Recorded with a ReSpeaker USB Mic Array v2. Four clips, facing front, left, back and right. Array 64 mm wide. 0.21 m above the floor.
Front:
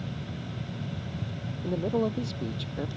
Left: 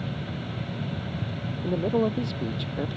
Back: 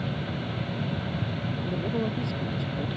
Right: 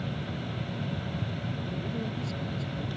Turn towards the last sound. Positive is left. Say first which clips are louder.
# left 15 dB, front 3 dB
turn(degrees=75)